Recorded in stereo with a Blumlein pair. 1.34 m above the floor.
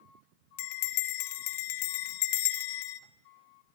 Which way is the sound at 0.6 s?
50° left.